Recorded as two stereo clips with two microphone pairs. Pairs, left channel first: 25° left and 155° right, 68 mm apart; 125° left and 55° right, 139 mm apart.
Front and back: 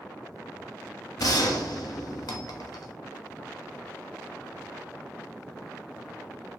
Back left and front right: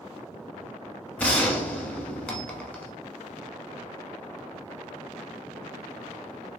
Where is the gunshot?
50° left, 0.6 m.